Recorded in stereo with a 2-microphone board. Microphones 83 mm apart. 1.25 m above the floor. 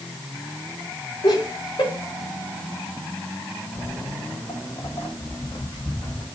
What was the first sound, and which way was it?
Laughter, 70° left (ahead or behind).